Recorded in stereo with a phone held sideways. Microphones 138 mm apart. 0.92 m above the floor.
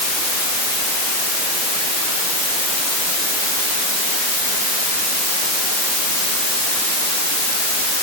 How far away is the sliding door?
I don't hear a sliding door.